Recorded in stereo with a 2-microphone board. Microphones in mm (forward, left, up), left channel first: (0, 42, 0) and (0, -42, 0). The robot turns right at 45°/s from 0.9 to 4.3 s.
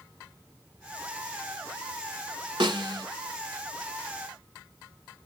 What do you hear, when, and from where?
2.6 s a snare drum: 65° right (ahead or behind), 1.3 m; by 3.1 s 55° right (ahead or behind), 1.3 m